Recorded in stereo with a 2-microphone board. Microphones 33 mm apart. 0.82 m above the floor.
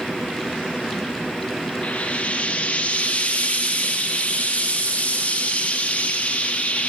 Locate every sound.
1.8 s frying: 45° left (ahead or behind), 0.6 m